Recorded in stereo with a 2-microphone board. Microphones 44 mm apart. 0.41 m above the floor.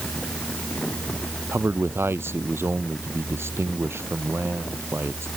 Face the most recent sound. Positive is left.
turn(degrees=-65)  # may be behind; listen again after turning